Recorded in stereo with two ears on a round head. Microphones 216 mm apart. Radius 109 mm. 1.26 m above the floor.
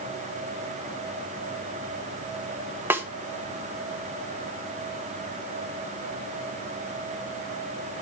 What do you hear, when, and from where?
2.9 s a snare drum: 10° right (ahead or behind), 0.8 m